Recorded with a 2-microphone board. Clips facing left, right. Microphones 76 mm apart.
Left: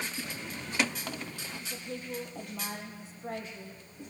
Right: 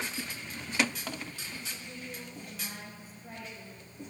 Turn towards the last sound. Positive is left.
turn(degrees=80)